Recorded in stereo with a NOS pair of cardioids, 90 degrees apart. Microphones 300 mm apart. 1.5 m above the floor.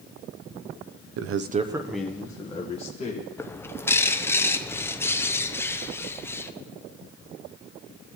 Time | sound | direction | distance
1.2 | a man speaking | 60° right | 0.5 m
3.4 | a bird | 10° left | 0.5 m